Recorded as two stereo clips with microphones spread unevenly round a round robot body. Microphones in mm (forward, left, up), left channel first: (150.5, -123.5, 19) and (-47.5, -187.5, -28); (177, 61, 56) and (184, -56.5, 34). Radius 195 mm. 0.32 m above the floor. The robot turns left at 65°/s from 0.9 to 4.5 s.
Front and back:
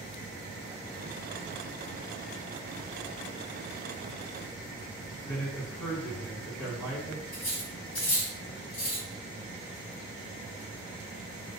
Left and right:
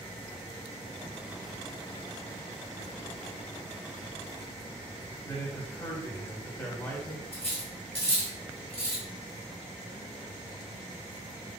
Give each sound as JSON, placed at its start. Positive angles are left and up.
{"t": 5.2, "sound": "a man speaking", "azimuth_deg": 20, "distance_m": 1.2}
{"t": 7.3, "sound": "cutlery clinking", "azimuth_deg": 50, "distance_m": 1.4}